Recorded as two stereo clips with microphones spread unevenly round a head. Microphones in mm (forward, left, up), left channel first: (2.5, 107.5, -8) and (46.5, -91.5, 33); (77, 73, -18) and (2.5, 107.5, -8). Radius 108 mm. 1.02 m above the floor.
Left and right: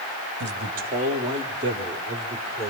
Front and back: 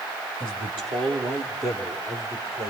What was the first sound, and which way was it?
A man speaking, 120° right.